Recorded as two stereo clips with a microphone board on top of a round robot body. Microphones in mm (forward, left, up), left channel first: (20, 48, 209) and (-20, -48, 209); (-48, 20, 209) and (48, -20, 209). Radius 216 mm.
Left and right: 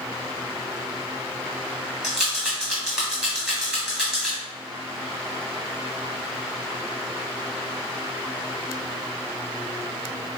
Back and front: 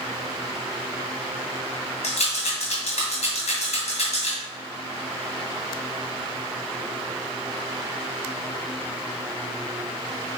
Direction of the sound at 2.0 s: 165° left.